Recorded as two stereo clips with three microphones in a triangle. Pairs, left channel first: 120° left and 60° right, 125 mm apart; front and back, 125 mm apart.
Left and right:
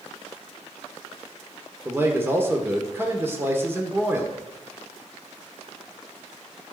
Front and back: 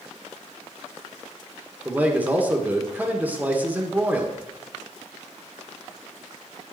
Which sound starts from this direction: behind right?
A man speaking, at 1.9 s.